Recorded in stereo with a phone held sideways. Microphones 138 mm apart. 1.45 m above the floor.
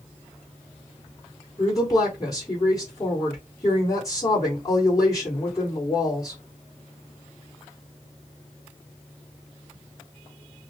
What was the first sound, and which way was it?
A woman speaking, 25° left (ahead or behind).